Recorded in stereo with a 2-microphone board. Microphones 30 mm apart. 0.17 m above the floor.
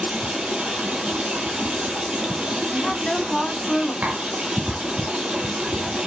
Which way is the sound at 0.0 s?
45° right (ahead or behind).